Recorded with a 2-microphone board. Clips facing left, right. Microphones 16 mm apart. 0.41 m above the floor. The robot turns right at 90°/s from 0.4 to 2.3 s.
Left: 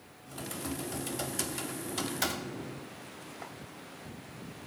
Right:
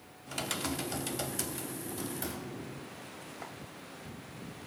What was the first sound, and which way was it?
Typing on a keyboard, 80° right.